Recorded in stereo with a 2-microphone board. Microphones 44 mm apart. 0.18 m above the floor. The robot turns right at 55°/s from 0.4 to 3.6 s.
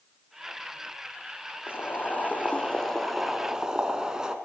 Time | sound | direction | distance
1.7 | boiling | 90° left | 2.5 m